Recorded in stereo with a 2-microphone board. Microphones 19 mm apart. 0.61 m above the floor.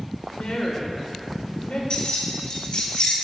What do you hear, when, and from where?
0.3 s a woman speaking: 70° left (ahead or behind), 1.5 m
1.9 s keys jangling: 55° left (ahead or behind), 1.0 m